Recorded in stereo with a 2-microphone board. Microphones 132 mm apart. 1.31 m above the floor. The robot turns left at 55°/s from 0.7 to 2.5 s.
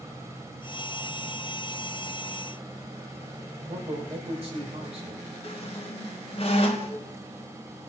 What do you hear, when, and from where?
3.7 s a man speaking: 50° right (ahead or behind), 5.5 m
5.4 s a squeak: 50° left (ahead or behind), 1.5 m